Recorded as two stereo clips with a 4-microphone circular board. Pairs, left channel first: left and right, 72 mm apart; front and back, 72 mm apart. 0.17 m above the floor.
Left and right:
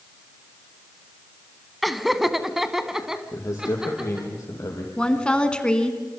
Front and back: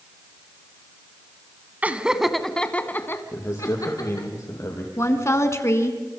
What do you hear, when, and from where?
1.8 s laughter: 175° right, 1.0 m; by 4.3 s 10° right, 1.7 m
3.3 s a man speaking: 45° left, 6 m
5.0 s a woman speaking: 20° left, 1.9 m